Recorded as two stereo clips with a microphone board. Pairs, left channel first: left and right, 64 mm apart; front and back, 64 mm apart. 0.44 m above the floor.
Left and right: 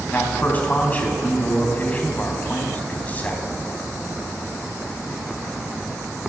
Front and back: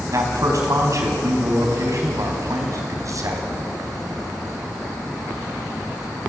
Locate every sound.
0.1 s a man speaking: 155° left, 4 m